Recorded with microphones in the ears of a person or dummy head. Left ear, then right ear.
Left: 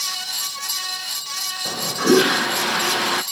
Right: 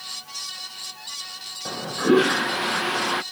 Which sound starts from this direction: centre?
A toilet flushing, at 1.6 s.